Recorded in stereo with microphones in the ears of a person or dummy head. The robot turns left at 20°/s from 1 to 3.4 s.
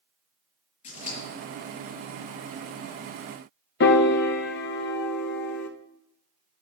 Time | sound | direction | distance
0.8 | scissors | 45° left (ahead or behind) | 4.5 m
3.8 | a piano | 60° left (ahead or behind) | 0.8 m